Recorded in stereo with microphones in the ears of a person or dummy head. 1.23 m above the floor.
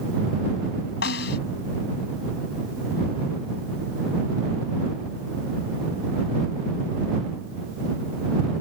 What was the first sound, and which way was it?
A snare drum, 70° left (ahead or behind).